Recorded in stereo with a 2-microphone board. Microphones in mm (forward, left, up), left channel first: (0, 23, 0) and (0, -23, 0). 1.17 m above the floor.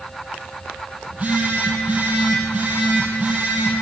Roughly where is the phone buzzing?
Right.